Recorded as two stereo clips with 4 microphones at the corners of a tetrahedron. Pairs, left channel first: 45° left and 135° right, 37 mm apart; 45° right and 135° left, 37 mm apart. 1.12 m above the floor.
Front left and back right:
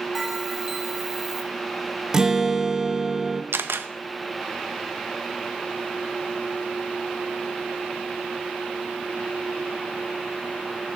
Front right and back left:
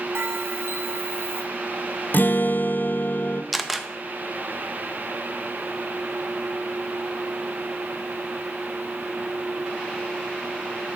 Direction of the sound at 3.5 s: 135° right.